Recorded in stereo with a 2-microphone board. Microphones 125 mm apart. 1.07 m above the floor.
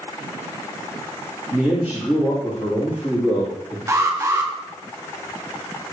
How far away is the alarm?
About 0.8 m.